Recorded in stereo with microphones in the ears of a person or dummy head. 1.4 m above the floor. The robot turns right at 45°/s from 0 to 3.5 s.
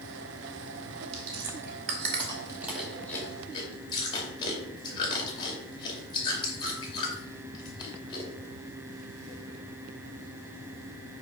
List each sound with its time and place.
1.1 s chewing: 75° right (ahead or behind), 2.5 m; by 8.3 s 30° left (ahead or behind), 2.5 m